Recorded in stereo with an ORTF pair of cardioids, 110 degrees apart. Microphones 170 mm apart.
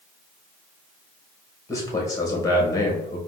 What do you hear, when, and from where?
1.7 s a man speaking: 20° left, 1.9 m